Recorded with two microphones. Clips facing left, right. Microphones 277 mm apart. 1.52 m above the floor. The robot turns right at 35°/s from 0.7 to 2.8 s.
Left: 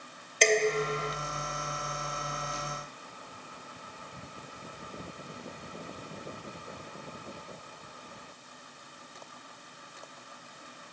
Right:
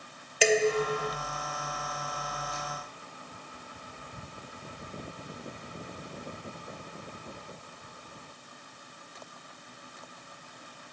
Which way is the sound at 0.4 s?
5° right (ahead or behind).